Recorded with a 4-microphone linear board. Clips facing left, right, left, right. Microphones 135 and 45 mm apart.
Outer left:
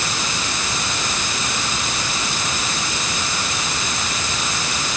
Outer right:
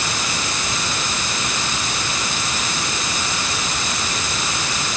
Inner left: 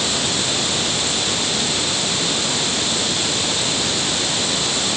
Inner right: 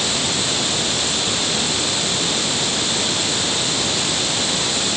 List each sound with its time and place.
Only background noise.